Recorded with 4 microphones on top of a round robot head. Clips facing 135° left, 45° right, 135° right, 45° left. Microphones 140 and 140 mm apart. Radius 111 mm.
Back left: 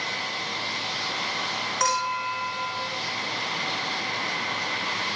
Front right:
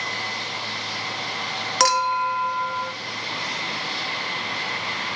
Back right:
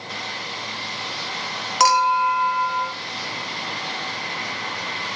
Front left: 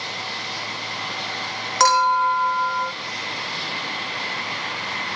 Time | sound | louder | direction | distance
1.8 | a clink | front right 6 dB, even | 55° right | 1.8 m